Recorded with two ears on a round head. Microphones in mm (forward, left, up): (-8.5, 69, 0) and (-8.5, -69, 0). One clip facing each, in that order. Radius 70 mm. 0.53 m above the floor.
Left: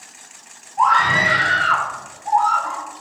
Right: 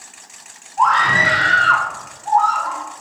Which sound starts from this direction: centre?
A scream, at 0.8 s.